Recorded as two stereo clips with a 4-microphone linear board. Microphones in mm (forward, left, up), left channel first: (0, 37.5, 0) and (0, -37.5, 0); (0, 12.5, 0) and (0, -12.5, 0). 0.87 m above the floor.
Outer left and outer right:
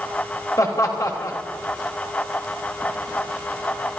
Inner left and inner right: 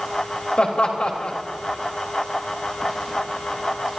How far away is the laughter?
About 3.5 m.